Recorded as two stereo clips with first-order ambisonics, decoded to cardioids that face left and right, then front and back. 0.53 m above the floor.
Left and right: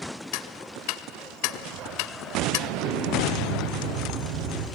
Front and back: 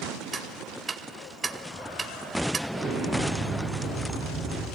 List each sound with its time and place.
0.3 s ticking: 105° left, 0.7 m
2.7 s an explosion: 100° right, 5.5 m